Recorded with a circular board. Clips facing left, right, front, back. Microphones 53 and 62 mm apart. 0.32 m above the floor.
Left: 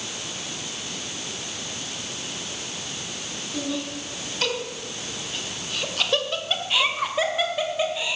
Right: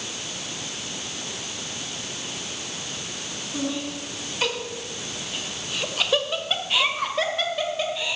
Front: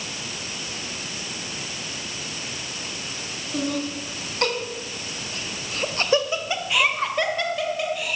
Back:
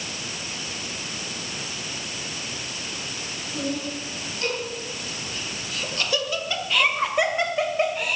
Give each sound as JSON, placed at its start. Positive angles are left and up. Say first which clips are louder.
{"t": 3.5, "sound": "laughter", "louder": "right 1 dB, front 3 dB", "azimuth_deg": -10, "distance_m": 3.5}